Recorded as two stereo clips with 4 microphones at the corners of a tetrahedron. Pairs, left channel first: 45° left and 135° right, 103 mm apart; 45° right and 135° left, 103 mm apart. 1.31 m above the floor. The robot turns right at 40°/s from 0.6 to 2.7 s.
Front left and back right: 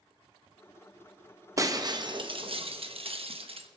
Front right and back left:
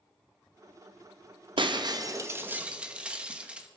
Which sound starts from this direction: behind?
Breaking glass, at 1.6 s.